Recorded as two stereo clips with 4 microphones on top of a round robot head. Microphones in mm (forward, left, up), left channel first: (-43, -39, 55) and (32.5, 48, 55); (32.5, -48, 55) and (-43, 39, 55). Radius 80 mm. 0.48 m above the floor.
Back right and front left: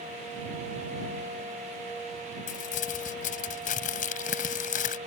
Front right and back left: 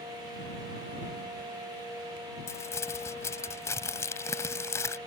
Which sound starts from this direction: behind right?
Crumpling, at 2.5 s.